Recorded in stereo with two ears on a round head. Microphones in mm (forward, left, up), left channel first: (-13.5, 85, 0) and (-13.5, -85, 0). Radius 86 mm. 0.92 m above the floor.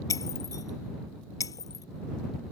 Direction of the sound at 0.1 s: 20° left (ahead or behind).